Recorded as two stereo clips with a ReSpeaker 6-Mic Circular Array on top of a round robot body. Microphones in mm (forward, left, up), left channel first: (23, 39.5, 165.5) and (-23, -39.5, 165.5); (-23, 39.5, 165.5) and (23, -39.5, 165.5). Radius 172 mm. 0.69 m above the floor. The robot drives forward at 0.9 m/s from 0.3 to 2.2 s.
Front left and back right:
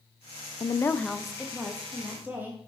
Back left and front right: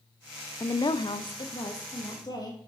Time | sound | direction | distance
0.6 | a woman speaking | 75° left | 0.6 m